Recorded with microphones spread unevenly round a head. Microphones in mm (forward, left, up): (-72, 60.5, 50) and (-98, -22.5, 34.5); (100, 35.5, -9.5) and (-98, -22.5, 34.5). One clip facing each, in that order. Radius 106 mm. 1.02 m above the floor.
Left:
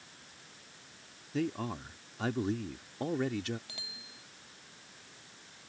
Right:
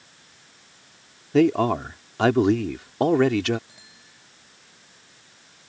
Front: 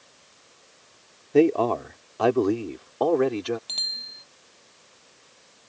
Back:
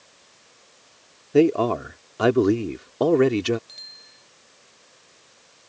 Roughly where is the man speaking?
Right.